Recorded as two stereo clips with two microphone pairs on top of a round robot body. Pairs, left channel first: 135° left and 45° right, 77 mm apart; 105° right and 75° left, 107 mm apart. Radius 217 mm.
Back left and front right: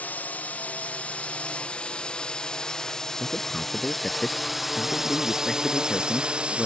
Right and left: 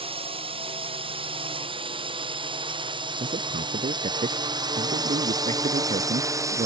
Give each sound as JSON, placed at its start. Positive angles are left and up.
{"t": 0.0, "sound": "a drone", "azimuth_deg": 75}
{"t": 3.2, "sound": "a man speaking", "azimuth_deg": 50}